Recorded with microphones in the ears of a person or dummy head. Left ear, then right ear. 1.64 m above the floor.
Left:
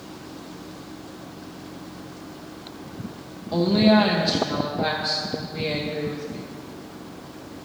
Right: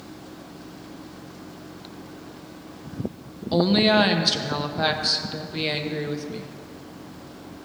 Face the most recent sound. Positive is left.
turn(degrees=-55)  # may be behind; listen again after turning